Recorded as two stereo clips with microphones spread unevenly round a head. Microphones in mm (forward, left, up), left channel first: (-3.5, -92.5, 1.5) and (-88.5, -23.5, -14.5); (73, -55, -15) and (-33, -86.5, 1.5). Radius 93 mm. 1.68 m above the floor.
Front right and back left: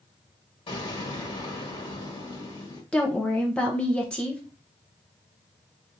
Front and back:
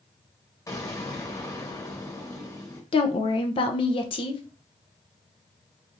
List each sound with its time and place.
0.7 s an explosion: 45° right, 1.5 m
2.9 s a woman speaking: 25° left, 0.6 m